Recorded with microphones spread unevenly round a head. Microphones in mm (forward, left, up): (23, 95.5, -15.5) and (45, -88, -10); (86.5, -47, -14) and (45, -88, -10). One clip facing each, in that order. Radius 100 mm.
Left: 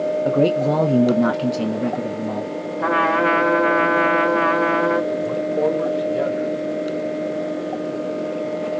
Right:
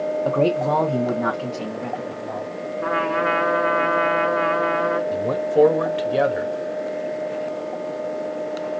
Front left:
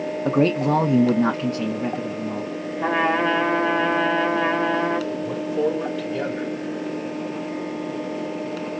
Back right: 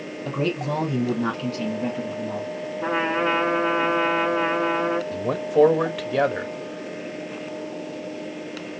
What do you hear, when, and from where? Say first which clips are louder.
0.2 s a man speaking: left 2 dB, front left 6 dB; 25° left, 1.0 m; by 2.5 s 130° left, 1.1 m
2.8 s a trumpet: left 3 dB, front left 3 dB; 90° left, 2.5 m
5.1 s a man speaking: right 2 dB, back right 4 dB; 110° right, 1.2 m